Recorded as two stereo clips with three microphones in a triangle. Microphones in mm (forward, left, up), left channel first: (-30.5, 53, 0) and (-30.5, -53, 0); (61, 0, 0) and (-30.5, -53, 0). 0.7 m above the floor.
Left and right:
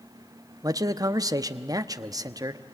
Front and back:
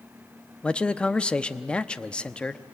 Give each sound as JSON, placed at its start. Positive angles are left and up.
{"t": 0.6, "sound": "a man speaking", "azimuth_deg": -50, "distance_m": 0.8}